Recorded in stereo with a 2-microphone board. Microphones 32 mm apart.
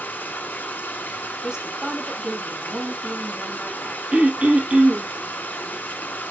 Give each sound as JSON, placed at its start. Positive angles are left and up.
{"t": 0.0, "sound": "running water", "side_deg": 65, "distance_m": 3.5}
{"t": 1.4, "sound": "a woman speaking", "side_deg": -30, "distance_m": 3.0}
{"t": 4.1, "sound": "throat clearing", "side_deg": -40, "distance_m": 1.6}